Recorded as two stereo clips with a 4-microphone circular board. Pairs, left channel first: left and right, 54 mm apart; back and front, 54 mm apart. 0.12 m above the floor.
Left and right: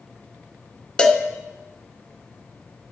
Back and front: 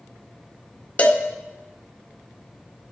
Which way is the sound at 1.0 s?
150° left.